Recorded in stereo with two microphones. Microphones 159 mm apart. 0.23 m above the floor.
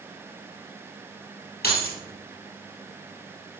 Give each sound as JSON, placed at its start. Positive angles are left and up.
{"t": 1.6, "sound": "keys jangling", "side_deg": 80, "distance_m": 3.5}